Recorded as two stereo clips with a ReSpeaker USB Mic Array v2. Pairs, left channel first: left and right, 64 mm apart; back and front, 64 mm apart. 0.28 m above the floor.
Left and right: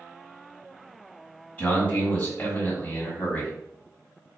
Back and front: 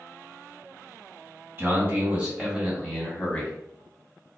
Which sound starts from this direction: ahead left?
A man speaking, at 1.6 s.